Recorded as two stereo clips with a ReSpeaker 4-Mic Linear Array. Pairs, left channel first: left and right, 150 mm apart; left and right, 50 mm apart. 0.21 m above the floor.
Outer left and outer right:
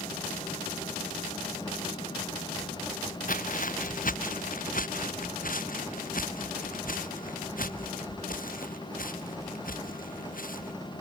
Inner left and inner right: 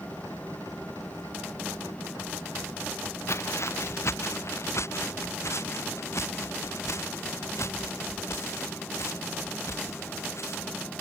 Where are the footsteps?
65° left (ahead or behind).